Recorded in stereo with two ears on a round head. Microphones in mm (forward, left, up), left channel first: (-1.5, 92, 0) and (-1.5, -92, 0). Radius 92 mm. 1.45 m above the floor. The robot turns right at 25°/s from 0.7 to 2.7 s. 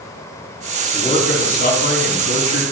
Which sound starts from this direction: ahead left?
A man speaking, at 0.9 s.